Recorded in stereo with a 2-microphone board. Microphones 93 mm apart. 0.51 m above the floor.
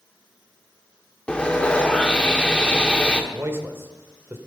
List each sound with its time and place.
1.3 s sawing: 10° left (ahead or behind), 1.0 m
3.3 s a man speaking: 25° right (ahead or behind), 1.3 m